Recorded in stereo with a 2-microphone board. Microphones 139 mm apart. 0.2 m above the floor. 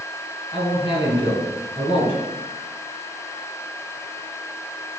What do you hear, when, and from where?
0.5 s a man speaking: 40° left (ahead or behind), 1.6 m